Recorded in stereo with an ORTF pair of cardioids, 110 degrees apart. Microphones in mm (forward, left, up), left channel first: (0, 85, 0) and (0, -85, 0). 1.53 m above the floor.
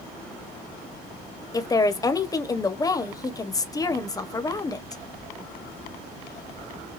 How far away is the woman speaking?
About 1.2 m.